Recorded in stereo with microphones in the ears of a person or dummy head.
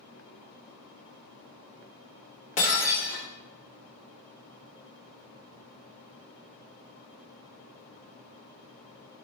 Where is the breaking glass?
40° left (ahead or behind), 0.9 m.